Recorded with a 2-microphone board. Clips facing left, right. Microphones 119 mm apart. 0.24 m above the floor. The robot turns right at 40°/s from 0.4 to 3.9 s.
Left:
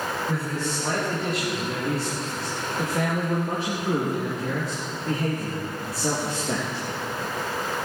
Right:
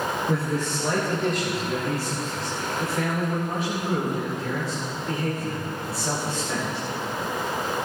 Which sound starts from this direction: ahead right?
A man speaking, at 0.3 s.